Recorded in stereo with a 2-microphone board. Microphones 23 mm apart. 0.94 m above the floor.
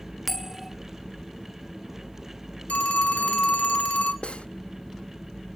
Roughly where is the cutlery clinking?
Left.